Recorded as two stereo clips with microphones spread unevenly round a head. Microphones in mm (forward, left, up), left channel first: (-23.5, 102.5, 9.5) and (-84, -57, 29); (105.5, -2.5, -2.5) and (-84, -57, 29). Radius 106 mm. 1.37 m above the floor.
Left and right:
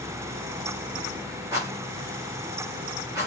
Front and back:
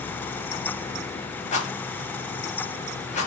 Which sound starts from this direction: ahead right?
A rattle, at 1.5 s.